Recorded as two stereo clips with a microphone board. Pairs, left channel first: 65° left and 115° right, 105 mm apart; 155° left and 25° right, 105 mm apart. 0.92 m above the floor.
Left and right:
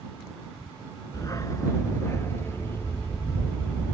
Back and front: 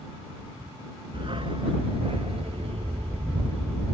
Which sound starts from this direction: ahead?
A dog barking, at 1.1 s.